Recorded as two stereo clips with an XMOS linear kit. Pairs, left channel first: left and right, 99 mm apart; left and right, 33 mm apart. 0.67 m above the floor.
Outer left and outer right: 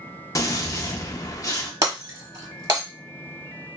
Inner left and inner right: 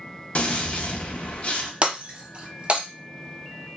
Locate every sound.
0.3 s a gunshot: 35° left (ahead or behind), 0.6 m
1.8 s breaking glass: 35° right (ahead or behind), 0.9 m